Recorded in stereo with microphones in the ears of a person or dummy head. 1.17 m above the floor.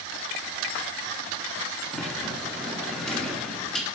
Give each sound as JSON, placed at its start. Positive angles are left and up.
{"t": 1.9, "sound": "a sliding door", "side_deg": 5, "distance_m": 0.7}